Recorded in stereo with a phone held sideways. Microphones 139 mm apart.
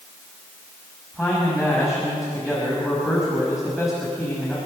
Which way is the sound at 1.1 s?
Centre (ahead or behind).